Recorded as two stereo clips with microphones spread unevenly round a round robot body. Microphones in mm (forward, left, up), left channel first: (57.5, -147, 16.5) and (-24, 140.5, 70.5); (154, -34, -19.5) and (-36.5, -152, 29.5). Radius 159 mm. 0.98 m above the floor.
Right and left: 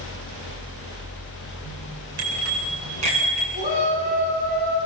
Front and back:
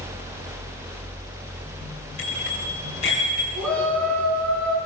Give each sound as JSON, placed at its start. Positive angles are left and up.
{"t": 2.2, "sound": "a bicycle bell", "azimuth_deg": 100, "distance_m": 9.5}
{"t": 3.5, "sound": "a shout", "azimuth_deg": 170, "distance_m": 10.0}